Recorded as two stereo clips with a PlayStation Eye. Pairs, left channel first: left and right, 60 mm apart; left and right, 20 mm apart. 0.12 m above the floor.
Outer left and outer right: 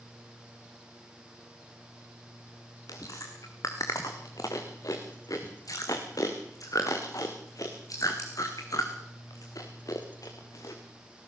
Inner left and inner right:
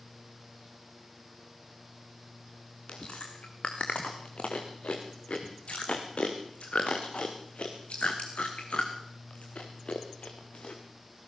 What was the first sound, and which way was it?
Chewing, 85° left.